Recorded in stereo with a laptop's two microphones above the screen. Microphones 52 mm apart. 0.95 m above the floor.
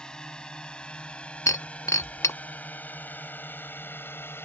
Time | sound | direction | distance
0.0 | a drone | 15° left (ahead or behind) | ?
1.5 | breaking glass | 80° left | ?